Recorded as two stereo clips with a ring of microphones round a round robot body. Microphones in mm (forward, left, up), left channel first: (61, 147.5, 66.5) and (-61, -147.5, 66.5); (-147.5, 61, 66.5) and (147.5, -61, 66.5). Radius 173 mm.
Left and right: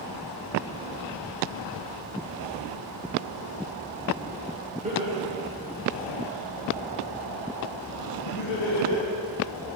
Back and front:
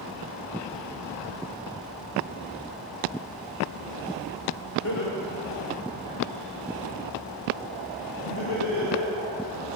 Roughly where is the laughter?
Behind.